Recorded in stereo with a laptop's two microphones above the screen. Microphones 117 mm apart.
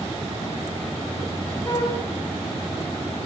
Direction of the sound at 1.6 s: 30° left (ahead or behind).